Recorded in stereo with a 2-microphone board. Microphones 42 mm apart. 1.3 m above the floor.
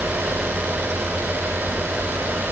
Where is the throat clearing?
I don't hear throat clearing.